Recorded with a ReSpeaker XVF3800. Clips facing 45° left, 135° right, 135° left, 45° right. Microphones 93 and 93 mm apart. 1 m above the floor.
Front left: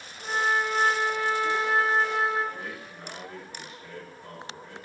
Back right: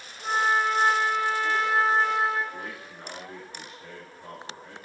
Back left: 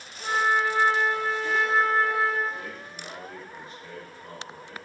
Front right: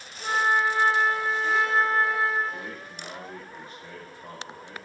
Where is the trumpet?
100° right, 1.7 m.